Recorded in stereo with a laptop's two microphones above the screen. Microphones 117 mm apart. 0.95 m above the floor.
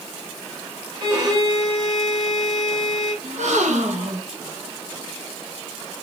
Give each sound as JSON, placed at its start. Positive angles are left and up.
{"t": 1.0, "sound": "a violin", "side_deg": -35, "distance_m": 2.5}
{"t": 3.2, "sound": "a gasp", "side_deg": -85, "distance_m": 1.2}